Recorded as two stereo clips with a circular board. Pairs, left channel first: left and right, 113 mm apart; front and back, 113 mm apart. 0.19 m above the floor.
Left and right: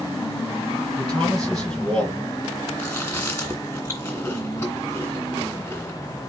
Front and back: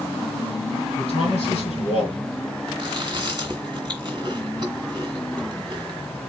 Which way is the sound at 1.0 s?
20° left.